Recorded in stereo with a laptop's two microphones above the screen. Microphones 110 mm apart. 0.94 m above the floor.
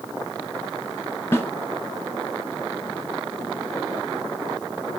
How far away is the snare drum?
About 1.6 m.